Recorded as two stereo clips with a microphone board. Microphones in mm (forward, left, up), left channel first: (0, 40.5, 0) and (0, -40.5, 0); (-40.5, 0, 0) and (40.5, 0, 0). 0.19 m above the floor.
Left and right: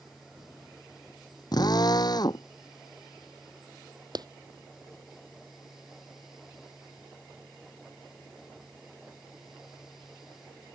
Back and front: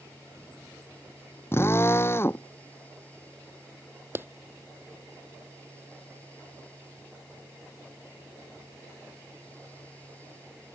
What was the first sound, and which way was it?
A drill, 120° left.